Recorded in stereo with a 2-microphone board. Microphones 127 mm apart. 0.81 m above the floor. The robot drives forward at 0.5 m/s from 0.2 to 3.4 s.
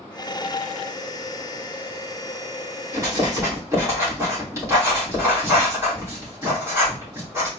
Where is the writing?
25° right (ahead or behind), 2.5 m; by 7.5 s 20° right (ahead or behind), 3 m.